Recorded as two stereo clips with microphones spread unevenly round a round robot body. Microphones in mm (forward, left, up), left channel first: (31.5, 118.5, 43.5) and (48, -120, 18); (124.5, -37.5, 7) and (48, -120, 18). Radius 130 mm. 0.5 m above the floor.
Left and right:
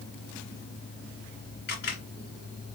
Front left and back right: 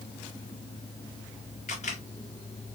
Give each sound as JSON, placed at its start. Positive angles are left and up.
{"t": 1.7, "sound": "a camera shutter", "azimuth_deg": 45, "distance_m": 2.0}